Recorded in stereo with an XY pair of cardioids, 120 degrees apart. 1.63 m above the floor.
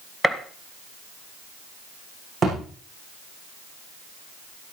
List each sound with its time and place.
0.2 s a gunshot: straight ahead, 1.3 m
2.4 s a thud: 40° right, 7.5 m